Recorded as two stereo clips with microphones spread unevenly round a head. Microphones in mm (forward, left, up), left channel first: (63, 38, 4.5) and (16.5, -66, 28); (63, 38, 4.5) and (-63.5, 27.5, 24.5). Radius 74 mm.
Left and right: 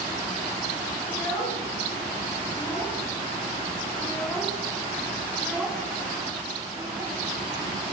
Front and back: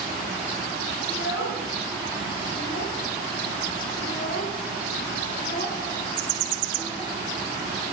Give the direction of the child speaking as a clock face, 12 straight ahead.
12 o'clock.